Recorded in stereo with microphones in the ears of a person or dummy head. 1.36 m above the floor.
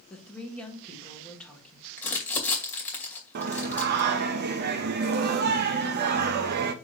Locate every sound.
0.1 s a woman speaking: 5° left (ahead or behind), 2 m
2.0 s crumpling: 10° left (ahead or behind), 2.5 m
3.4 s singing: 55° right (ahead or behind), 0.7 m